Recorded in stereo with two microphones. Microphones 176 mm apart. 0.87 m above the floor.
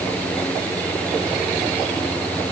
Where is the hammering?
No hammering in this recording.